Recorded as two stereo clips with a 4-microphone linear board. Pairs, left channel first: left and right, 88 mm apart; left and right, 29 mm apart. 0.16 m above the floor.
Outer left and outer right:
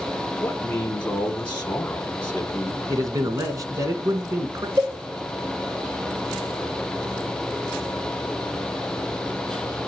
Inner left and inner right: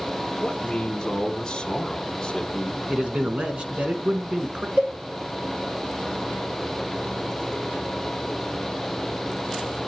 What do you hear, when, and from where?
0.4 s a man speaking: 15° left (ahead or behind), 1.1 m
2.9 s a man speaking: 40° right (ahead or behind), 1.5 m
4.8 s a cowbell: 35° right (ahead or behind), 7 m